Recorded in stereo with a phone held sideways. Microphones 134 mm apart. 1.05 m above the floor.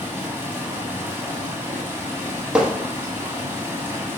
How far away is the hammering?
About 1.1 m.